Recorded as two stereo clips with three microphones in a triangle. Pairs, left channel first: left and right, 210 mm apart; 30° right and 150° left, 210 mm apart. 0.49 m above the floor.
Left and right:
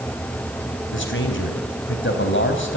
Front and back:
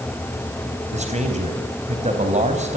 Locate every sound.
0.9 s a man speaking: 95° left, 4 m